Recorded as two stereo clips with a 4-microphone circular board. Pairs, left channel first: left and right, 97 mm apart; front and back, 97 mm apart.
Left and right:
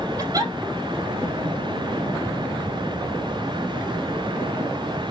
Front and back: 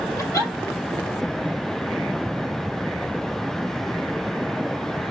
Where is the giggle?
55° right, 2.5 m.